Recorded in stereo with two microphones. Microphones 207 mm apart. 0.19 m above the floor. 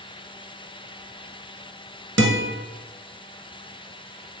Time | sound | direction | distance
2.2 | a guitar | 70° right (ahead or behind) | 0.7 m